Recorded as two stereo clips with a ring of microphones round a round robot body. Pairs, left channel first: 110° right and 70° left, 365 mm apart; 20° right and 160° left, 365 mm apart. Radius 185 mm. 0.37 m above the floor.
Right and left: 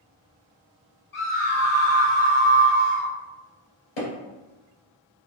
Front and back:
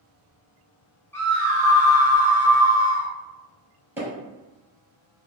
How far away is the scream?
About 0.9 m.